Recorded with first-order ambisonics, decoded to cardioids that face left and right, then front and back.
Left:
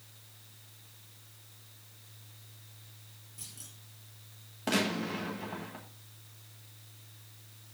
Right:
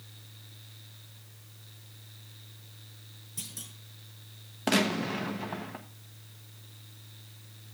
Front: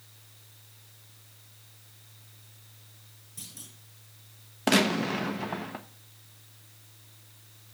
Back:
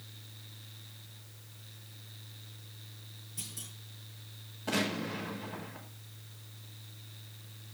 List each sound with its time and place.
3.4 s a clunk: 90° right, 6 m
4.7 s a gunshot: 20° right, 1.1 m